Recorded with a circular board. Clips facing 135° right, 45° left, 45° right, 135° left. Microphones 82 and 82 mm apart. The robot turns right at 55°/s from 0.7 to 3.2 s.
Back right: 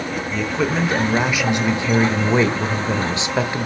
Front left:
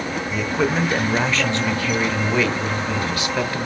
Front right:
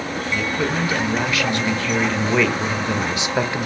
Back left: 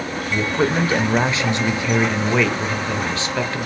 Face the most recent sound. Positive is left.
turn(degrees=-100)